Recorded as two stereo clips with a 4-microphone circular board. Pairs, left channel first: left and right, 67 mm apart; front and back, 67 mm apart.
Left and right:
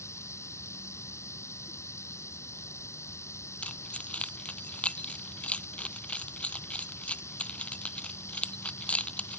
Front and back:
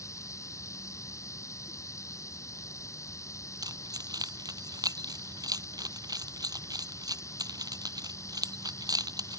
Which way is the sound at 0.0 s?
45° left.